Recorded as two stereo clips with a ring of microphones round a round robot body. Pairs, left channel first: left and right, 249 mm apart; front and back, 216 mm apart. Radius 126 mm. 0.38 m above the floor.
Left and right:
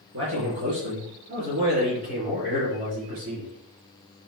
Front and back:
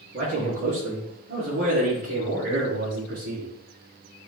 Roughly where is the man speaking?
Behind right.